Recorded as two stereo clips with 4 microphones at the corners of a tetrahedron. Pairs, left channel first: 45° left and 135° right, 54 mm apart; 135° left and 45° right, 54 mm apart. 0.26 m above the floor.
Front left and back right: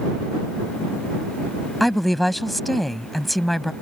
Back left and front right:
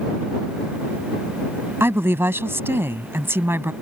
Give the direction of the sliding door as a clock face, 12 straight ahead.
I don't hear a sliding door.